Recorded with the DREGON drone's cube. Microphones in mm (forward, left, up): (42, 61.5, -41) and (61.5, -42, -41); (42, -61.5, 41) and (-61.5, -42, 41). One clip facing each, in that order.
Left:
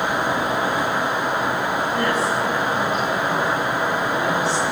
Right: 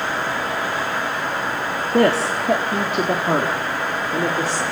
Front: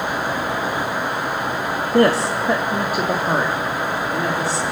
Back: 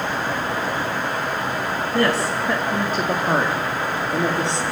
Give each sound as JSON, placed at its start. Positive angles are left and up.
{"t": 1.9, "sound": "a woman speaking", "azimuth_deg": -65, "distance_m": 1.8}